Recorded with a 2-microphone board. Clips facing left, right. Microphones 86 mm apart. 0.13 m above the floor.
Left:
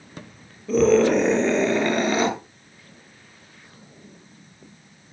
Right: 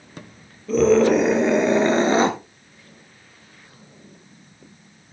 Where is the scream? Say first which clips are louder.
Right 1 dB; centre (ahead or behind), 3 m; by 2.3 s 35° right (ahead or behind), 1.7 m.